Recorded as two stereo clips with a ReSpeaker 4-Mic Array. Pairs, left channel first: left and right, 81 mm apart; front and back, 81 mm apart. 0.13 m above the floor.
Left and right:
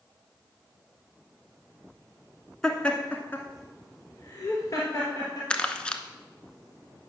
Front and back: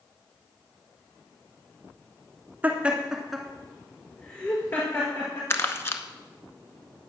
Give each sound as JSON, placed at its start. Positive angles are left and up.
{"t": 2.6, "sound": "laughter", "azimuth_deg": 160, "distance_m": 1.2}
{"t": 5.5, "sound": "crumpling", "azimuth_deg": 25, "distance_m": 0.8}